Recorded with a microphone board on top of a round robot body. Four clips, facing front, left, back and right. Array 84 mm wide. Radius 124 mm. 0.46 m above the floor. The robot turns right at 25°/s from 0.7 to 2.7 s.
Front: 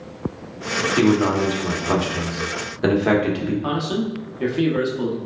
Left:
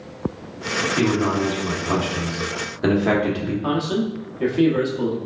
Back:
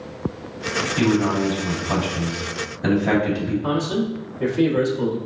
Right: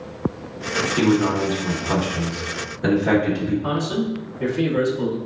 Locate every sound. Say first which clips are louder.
1.0 s a man speaking: right 2 dB, front 2 dB; 15° right, 1.5 m; by 3.5 s 25° left, 1.5 m
3.6 s a man speaking: left 1 dB, back 1 dB; 30° left, 1.2 m